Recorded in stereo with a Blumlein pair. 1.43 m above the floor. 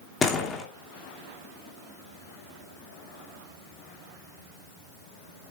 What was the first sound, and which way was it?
A door slam, 20° left.